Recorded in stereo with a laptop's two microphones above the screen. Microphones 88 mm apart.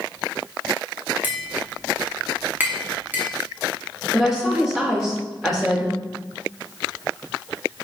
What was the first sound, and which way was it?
Tapping, 20° right (ahead or behind).